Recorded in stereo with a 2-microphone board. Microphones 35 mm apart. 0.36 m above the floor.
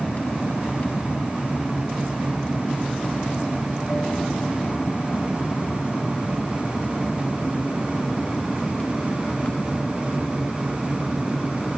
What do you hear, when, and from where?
0.0 s an aircraft: 40° left (ahead or behind); by 11.8 s 30° left (ahead or behind)